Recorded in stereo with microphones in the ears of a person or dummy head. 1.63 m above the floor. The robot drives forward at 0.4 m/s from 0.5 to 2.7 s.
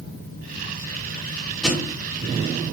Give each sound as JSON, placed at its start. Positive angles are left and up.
{"t": 1.6, "sound": "a thud", "side_deg": 0, "distance_m": 6.0}